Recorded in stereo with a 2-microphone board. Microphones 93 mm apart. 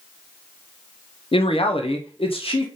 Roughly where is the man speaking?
Left.